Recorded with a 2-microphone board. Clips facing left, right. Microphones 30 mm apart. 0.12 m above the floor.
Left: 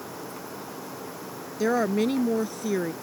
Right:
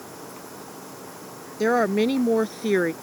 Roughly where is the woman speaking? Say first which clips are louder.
Right 3 dB; centre.